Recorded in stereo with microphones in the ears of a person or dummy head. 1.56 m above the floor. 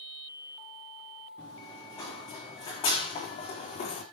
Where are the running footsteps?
20° left (ahead or behind), 4.5 m; by 4.0 s 40° left (ahead or behind), 4 m.